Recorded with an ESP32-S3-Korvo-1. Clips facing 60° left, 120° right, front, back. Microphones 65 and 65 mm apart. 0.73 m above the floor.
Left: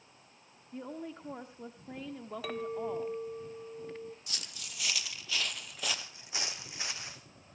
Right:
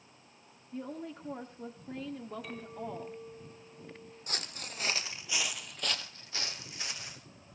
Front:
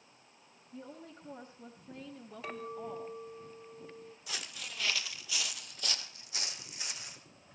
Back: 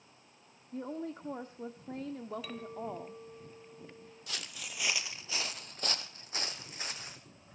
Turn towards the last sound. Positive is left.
turn(degrees=125)